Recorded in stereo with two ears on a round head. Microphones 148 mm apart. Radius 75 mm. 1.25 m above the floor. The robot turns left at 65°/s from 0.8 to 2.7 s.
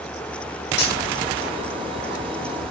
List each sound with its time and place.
0.8 s cutlery clinking: 75° left (ahead or behind), 6.5 m; by 1.0 s 85° left, 6.5 m